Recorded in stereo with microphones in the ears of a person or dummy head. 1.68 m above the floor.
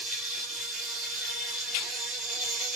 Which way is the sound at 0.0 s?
Centre (ahead or behind).